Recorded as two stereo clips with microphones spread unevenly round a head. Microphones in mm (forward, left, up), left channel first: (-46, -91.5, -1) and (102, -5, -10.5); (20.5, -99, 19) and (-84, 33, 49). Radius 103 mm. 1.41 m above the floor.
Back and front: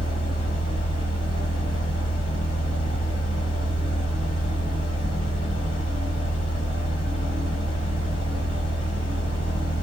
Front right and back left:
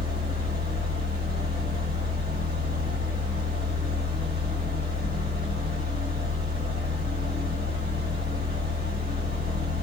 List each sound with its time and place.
0.0 s a fan: 160° left, 1.5 m